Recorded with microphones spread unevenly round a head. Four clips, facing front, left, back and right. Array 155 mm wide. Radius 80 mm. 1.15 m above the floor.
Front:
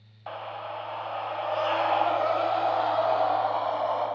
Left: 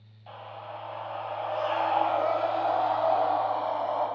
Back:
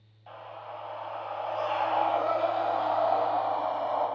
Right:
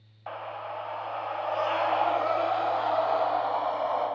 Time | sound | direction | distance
0.3 | a scream | 50° right | 0.8 m